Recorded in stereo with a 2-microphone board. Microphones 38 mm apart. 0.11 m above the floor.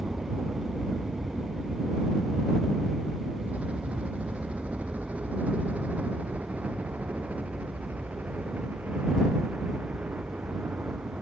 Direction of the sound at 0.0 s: 25° right (ahead or behind).